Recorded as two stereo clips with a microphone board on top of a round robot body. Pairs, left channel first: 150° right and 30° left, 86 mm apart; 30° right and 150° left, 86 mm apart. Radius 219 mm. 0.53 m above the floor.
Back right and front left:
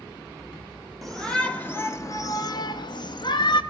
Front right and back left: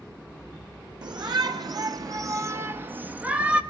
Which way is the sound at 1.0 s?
125° left.